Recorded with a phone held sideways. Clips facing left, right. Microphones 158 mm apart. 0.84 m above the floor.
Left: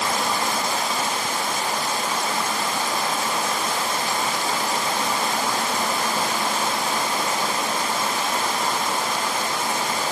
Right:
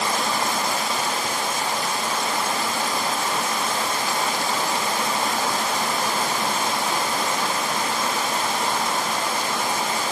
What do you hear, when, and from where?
Only background noise.